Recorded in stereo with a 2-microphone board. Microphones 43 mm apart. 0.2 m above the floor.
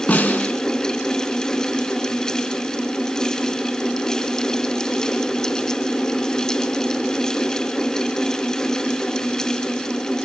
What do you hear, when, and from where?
0.1 s a snare drum: 40° left (ahead or behind), 2 m